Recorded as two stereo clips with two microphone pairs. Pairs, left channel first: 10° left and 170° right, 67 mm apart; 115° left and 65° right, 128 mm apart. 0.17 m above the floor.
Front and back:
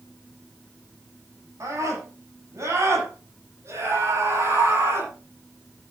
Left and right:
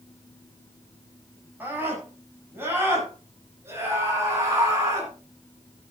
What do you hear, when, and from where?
1.6 s a scream: 140° right, 9.5 m; by 5.1 s 130° right, 10.5 m